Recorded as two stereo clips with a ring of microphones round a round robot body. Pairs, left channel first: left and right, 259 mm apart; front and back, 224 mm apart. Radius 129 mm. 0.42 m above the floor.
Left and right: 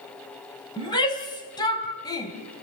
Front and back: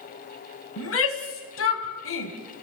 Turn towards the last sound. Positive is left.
turn(degrees=15)